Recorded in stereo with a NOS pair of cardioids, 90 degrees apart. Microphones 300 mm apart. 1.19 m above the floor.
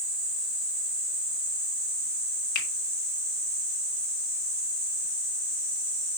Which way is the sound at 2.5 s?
60° left.